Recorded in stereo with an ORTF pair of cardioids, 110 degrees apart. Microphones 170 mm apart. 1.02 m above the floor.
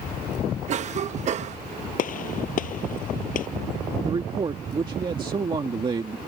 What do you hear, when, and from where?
0.7 s a cough: 45° right
2.0 s a gunshot: 55° left
4.0 s a man speaking: 30° right